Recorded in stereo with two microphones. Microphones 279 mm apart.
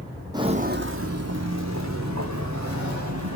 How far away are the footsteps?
About 0.6 m.